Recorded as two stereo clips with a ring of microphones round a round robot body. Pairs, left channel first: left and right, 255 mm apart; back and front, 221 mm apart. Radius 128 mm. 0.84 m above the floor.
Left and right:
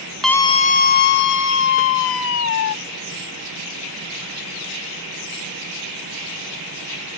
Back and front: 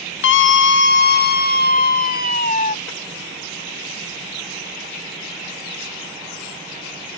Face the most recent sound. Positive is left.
turn(degrees=125)